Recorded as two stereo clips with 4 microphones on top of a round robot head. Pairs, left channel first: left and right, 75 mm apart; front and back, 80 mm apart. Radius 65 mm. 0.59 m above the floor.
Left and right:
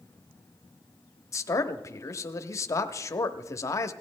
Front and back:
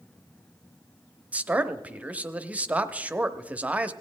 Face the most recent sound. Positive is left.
turn(degrees=115)